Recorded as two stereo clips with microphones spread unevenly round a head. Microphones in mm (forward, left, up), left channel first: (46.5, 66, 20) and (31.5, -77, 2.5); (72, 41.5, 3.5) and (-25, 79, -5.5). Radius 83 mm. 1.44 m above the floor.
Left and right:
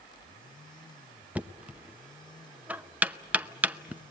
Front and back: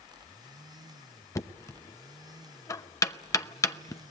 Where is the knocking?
15° right, 0.7 m.